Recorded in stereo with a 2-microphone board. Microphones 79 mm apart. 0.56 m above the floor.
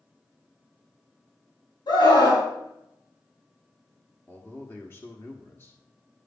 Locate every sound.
1.9 s a scream: 75° left (ahead or behind), 3.5 m
4.3 s a man speaking: 30° left (ahead or behind), 1.2 m